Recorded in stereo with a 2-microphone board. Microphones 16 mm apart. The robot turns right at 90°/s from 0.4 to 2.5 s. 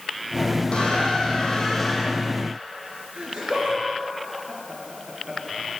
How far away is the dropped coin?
I don't hear a dropped coin.